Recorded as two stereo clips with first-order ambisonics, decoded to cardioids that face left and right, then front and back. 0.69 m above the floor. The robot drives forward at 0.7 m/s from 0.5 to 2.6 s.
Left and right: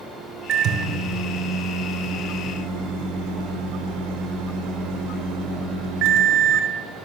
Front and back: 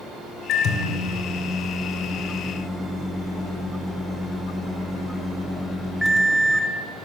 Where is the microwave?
40° right, 1.9 m; by 6.7 s 95° right, 1.3 m.